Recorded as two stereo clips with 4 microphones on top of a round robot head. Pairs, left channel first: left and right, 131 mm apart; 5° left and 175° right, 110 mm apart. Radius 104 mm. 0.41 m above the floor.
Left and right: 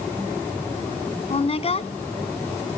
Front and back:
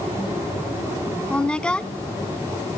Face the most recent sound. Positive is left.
turn(degrees=80)